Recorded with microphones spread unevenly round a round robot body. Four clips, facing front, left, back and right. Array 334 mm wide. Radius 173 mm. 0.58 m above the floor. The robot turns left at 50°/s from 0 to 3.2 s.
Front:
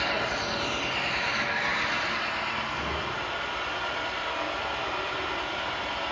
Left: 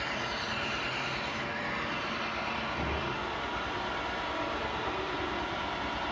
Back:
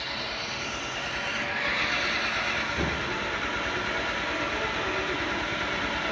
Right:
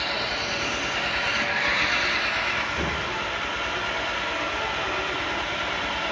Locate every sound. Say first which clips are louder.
0.0 s an engine running: right 6 dB, front 6 dB; 15° right, 5 m; by 6.1 s 175° right, 5 m